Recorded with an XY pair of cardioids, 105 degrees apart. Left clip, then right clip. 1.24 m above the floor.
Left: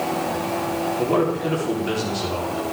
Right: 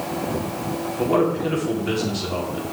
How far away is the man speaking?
About 4 m.